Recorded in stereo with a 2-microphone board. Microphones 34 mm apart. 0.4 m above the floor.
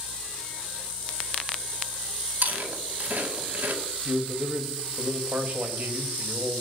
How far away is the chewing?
About 2.5 m.